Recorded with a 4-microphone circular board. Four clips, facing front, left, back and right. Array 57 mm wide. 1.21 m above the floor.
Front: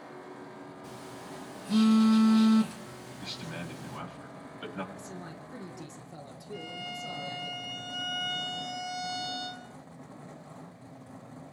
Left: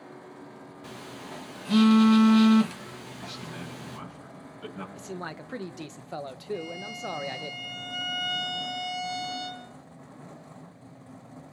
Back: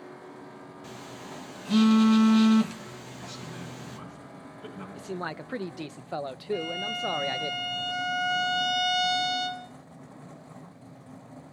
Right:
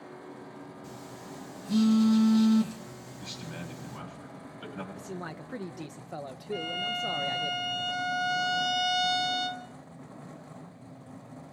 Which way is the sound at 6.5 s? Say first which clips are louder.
Right 3 dB, back 8 dB; 130° right.